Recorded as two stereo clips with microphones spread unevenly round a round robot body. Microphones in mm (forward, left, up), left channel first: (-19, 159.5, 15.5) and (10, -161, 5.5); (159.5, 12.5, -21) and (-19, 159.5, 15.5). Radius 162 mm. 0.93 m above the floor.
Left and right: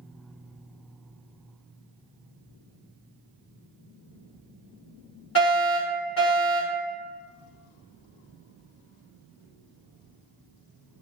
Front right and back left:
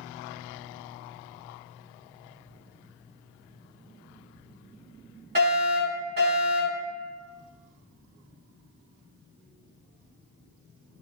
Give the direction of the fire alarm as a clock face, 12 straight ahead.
8 o'clock.